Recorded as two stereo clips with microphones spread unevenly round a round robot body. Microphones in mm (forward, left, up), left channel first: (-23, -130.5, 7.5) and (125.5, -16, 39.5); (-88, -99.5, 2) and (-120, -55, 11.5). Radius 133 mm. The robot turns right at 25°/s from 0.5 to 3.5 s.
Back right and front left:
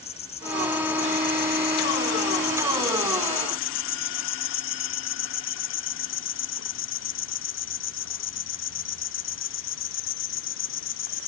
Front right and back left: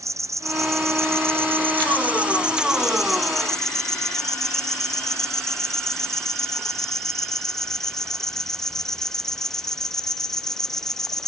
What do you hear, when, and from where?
0.0 s an insect: 150° left; by 11.3 s 135° right